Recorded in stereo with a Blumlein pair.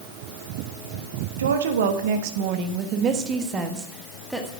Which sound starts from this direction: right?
A woman speaking, at 1.4 s.